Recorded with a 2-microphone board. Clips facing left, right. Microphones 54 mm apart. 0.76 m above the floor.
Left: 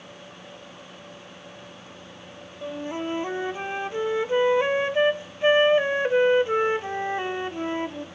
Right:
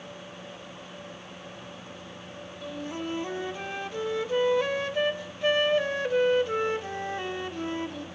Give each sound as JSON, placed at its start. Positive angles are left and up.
{"t": 2.6, "sound": "a flute", "side_deg": 25, "distance_m": 0.6}